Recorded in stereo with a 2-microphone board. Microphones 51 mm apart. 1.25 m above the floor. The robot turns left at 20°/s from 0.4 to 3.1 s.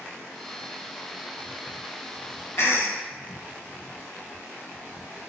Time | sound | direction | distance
2.6 | a cough | 50° left (ahead or behind) | 1.2 m